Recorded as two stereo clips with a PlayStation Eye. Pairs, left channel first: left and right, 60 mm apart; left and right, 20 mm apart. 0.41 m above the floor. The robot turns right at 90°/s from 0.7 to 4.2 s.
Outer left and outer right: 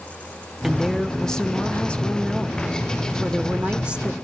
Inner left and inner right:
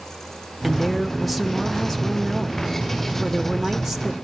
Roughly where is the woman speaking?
Centre.